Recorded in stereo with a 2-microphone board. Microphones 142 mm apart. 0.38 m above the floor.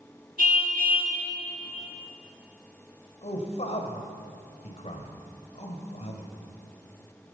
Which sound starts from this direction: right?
A car horn, at 0.4 s.